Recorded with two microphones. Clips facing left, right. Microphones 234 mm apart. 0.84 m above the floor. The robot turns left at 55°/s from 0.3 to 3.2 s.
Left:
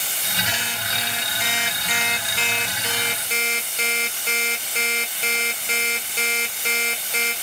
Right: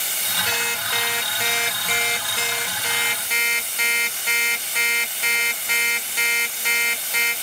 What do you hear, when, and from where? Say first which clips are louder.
0.5 s an alarm clock: right 2 dB; 55° right, 1.2 m; by 7.3 s 155° left, 1.2 m